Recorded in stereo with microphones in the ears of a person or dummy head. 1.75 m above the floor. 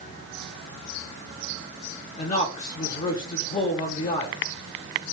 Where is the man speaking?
45° left (ahead or behind), 1.6 m.